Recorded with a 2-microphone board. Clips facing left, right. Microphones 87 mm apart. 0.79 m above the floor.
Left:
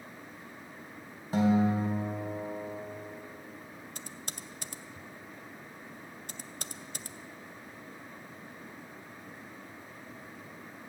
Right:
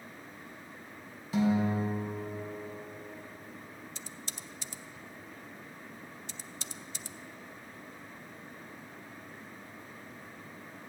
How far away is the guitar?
About 3 m.